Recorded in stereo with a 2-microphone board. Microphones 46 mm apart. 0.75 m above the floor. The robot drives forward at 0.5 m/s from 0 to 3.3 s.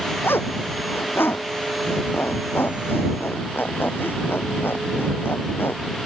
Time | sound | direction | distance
0.2 | a zipper | 55° left (ahead or behind) | ?